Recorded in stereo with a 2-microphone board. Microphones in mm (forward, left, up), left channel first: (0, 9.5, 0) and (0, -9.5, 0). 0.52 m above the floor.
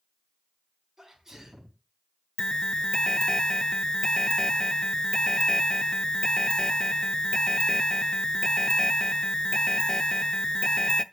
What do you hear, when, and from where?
1.0 s a sneeze: 30° right (ahead or behind), 4 m
2.4 s an alarm: 40° left (ahead or behind), 0.6 m